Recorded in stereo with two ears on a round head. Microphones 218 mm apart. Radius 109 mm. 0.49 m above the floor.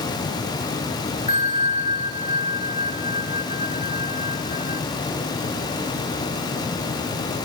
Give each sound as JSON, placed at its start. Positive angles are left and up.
{"t": 1.3, "sound": "a bell", "side_deg": 25, "distance_m": 0.7}